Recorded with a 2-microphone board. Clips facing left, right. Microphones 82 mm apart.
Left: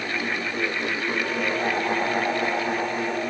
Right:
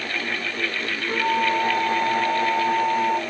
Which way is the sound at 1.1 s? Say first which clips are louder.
Right 8 dB; 65° right (ahead or behind).